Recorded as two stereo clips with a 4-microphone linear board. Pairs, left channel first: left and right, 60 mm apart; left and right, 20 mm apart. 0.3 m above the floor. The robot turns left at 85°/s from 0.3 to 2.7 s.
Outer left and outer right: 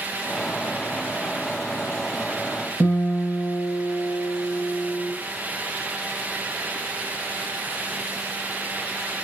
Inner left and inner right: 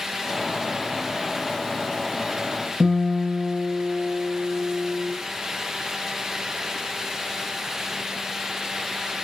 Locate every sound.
2.8 s a guitar: 50° left (ahead or behind), 1.6 m